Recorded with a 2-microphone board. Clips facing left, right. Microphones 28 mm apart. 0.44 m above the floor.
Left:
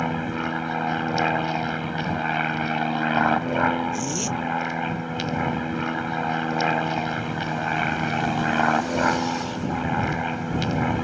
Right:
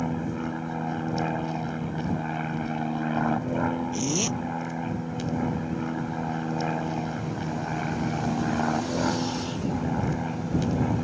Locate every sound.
0.0 s an aircraft: 55° left (ahead or behind)
3.9 s a zipper: 20° right (ahead or behind)